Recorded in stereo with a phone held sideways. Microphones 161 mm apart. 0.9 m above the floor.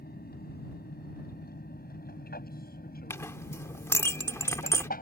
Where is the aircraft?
75° left (ahead or behind); by 5.0 s 65° left (ahead or behind).